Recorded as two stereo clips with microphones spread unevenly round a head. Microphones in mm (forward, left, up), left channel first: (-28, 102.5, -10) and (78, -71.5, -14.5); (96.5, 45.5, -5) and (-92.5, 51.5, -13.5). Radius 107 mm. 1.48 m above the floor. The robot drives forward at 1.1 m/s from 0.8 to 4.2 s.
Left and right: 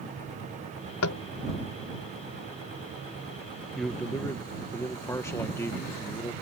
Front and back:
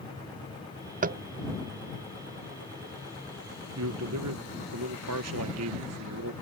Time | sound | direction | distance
1.0 | tapping | 135° left | ?
3.8 | a man speaking | 150° right | ?